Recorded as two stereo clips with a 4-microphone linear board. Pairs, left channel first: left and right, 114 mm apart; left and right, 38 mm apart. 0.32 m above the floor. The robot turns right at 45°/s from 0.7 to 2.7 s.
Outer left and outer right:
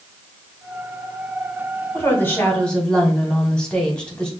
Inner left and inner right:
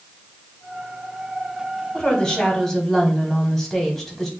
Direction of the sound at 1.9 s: 20° left (ahead or behind).